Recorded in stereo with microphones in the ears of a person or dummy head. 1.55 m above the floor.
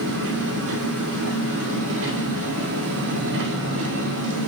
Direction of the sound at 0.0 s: 70° right (ahead or behind).